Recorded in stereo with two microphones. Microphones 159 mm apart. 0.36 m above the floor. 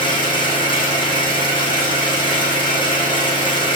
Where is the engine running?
30° left (ahead or behind), 6.5 m.